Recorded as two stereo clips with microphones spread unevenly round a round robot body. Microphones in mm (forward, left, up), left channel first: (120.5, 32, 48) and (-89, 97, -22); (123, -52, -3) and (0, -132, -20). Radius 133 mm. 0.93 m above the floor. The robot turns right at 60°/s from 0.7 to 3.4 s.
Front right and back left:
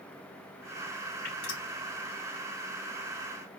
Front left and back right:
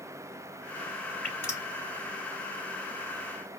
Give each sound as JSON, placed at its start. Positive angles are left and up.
{"t": 1.2, "sound": "dripping", "azimuth_deg": -55, "distance_m": 3.0}